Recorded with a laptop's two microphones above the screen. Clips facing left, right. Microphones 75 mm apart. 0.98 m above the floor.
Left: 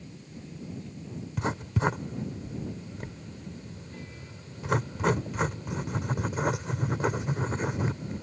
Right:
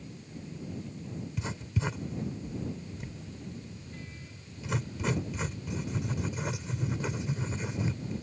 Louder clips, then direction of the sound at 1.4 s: Left 8 dB; 55° left (ahead or behind).